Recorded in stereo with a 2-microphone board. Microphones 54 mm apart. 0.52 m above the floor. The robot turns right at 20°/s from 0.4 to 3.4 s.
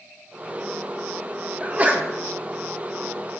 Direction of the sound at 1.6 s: 30° right (ahead or behind).